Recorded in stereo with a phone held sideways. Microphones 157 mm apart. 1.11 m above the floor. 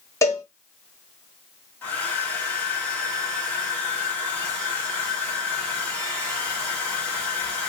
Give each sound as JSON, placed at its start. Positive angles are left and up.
{"t": 0.2, "sound": "a cowbell", "side_deg": 20, "distance_m": 1.1}
{"t": 1.8, "sound": "a hair dryer", "side_deg": 10, "distance_m": 1.3}